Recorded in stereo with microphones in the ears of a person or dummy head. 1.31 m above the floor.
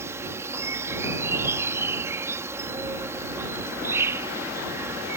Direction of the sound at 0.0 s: 15° right (ahead or behind).